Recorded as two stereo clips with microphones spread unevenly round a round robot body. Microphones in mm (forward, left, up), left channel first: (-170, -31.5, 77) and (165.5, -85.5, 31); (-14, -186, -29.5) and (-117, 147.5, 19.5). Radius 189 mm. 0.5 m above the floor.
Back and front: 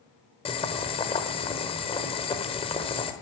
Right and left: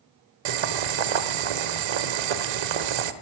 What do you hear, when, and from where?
0.5 s boiling: 95° left, 1.1 m